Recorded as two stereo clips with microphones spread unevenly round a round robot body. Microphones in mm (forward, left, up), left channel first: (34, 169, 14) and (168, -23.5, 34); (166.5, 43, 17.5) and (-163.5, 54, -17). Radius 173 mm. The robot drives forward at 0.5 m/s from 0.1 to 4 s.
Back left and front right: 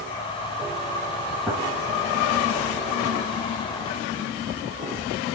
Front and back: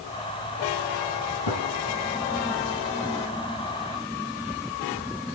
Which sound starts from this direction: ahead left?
A gunshot, at 1.5 s.